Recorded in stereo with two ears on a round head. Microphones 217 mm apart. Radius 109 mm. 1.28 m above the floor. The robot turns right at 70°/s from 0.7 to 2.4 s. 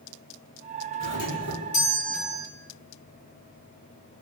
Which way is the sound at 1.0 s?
95° left.